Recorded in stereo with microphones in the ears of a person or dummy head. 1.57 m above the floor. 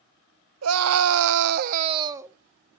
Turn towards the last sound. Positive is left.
turn(degrees=-10)  # may be behind; listen again after turning